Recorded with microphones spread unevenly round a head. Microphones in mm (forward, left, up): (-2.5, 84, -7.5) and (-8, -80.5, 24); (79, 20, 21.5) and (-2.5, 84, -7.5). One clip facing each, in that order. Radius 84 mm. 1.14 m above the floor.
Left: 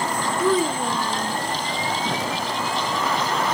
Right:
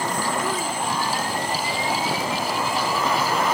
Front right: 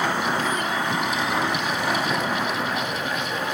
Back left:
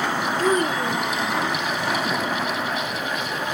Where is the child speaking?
90° left; by 1.4 s 80° left.